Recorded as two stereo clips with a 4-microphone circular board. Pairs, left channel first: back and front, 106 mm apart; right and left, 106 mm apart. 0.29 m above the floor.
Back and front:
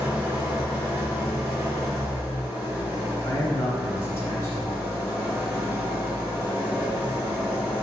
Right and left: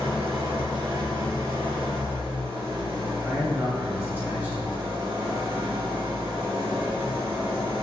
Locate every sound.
0.0 s an engine running: 65° left, 0.7 m
3.2 s a man speaking: 150° left, 1.2 m